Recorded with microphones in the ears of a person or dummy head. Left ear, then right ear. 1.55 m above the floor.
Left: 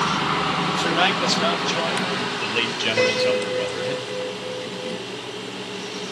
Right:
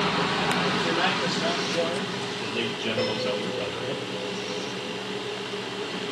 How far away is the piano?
About 3.5 m.